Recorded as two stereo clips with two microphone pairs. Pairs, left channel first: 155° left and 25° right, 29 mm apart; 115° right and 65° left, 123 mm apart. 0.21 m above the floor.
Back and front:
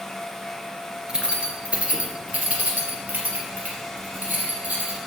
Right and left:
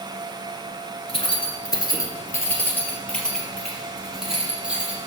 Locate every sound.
1.1 s keys jangling: 80° right, 2.5 m; by 5.0 s 15° right, 5 m